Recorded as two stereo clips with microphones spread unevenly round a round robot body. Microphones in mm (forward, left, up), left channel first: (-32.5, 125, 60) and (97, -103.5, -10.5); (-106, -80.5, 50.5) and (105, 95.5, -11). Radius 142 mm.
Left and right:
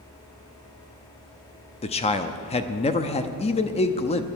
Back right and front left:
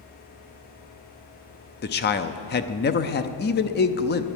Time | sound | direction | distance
1.8 | a man speaking | 170° right | 0.7 m